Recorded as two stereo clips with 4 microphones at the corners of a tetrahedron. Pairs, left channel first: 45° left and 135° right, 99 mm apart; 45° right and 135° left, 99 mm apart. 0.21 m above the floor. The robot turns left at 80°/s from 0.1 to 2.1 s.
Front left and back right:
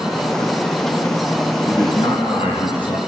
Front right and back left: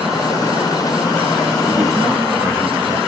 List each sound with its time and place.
1.7 s a man speaking: 100° left, 3 m; by 3.0 s 65° left, 3 m